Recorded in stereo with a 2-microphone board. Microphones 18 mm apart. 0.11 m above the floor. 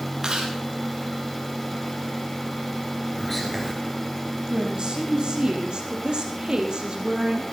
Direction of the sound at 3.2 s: 10° left (ahead or behind).